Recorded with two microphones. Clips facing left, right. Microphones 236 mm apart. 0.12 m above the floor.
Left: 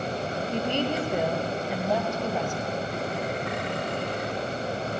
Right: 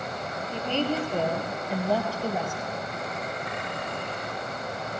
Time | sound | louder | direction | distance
0.5 | a woman speaking | even | 20° left (ahead or behind) | 2 m